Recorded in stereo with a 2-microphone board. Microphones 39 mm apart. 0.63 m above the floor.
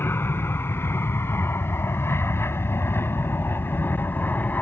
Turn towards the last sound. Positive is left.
turn(degrees=45)  # may be behind; listen again after turning